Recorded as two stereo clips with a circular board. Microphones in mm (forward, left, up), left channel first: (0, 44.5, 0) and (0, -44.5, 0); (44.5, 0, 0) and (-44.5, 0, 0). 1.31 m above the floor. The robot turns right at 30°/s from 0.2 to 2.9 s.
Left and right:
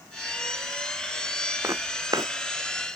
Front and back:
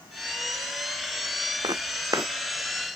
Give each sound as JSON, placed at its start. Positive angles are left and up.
{"t": 1.6, "sound": "footsteps", "azimuth_deg": -150}